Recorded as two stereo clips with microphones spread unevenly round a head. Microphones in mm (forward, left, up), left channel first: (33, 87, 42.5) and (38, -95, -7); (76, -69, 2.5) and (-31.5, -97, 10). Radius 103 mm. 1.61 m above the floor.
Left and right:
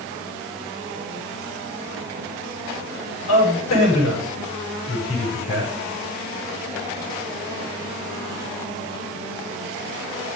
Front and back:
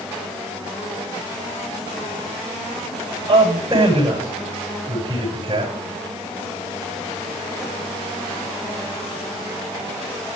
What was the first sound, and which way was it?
A man speaking, 120° left.